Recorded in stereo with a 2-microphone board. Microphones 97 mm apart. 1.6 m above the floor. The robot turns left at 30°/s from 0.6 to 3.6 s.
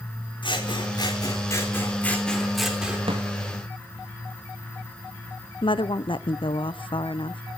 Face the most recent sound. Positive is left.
turn(degrees=60)  # may be behind; listen again after turning